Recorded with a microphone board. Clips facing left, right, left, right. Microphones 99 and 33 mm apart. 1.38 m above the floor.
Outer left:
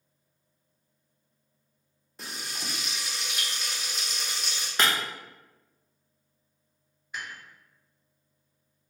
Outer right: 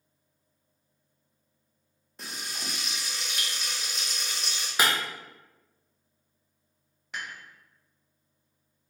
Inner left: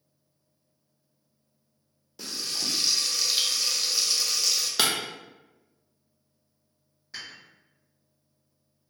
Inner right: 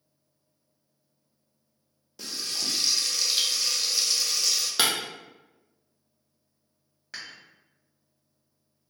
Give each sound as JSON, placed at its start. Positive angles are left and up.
{"t": 2.2, "sound": "frying", "side_deg": 0, "distance_m": 0.6}
{"t": 4.8, "sound": "breaking glass", "side_deg": -5, "distance_m": 0.5}
{"t": 7.1, "sound": "dishes clattering", "side_deg": -70, "distance_m": 1.2}